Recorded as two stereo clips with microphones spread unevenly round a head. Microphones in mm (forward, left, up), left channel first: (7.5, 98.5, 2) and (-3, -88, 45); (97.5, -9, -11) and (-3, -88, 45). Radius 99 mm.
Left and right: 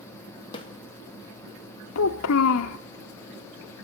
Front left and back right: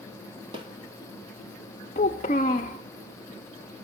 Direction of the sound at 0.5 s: 150° left.